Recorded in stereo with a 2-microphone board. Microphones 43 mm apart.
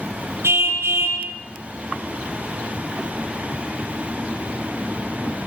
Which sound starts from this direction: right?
A car horn, at 0.4 s.